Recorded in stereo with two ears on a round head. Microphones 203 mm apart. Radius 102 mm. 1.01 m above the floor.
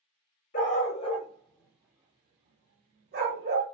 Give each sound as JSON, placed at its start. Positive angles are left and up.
{"t": 0.5, "sound": "a dog barking", "side_deg": 40, "distance_m": 0.8}